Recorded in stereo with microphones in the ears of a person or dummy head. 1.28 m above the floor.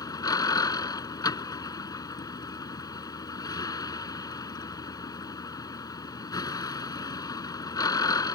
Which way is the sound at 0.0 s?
20° left (ahead or behind).